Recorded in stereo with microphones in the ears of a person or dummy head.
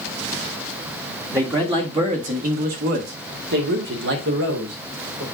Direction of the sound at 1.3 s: 15° right (ahead or behind).